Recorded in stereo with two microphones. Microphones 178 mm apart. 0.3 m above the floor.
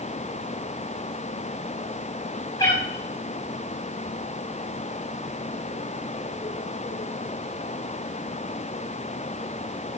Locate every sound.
2.6 s a cat meowing: 20° left (ahead or behind), 5.5 m